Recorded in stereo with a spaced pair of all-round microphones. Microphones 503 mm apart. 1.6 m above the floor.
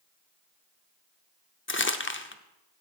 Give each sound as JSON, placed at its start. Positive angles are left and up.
{"t": 1.7, "sound": "crumpling", "side_deg": 25, "distance_m": 0.5}